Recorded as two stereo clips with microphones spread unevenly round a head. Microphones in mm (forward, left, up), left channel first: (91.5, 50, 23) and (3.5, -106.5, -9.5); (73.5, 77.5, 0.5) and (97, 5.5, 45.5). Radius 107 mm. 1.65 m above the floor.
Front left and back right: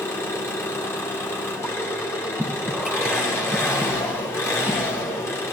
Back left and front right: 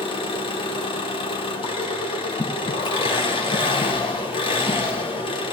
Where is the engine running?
110° left, 1.4 m.